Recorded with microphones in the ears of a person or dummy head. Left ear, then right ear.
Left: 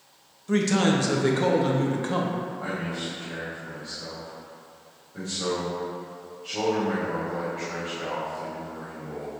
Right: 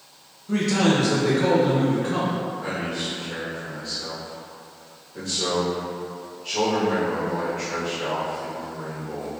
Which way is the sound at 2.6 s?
40° left (ahead or behind).